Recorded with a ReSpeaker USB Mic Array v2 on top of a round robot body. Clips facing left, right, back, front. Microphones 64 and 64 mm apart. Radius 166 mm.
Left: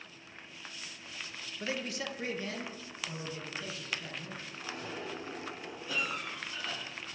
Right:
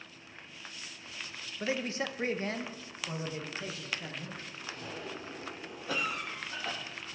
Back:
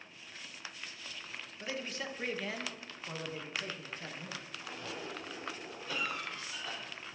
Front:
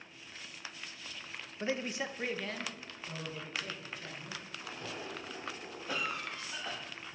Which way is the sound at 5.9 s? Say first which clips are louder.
Right 2 dB, front 1 dB; 70° right.